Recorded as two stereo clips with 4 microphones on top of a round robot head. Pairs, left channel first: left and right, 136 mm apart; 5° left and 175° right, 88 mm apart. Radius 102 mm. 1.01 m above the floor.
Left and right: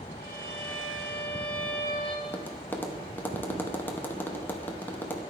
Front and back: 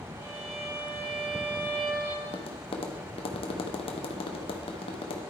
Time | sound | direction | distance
0.2 | a violin | 155° left | 4.5 m
2.2 | tapping | 15° left | 0.8 m